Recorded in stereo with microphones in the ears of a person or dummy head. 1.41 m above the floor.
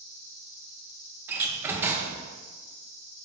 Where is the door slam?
10° right (ahead or behind), 1.0 m.